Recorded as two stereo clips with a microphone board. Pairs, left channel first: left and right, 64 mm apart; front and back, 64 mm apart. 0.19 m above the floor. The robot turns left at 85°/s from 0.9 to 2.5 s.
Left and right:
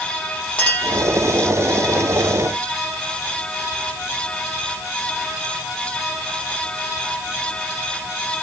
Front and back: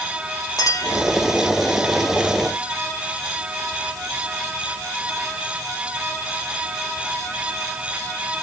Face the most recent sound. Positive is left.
turn(degrees=-115)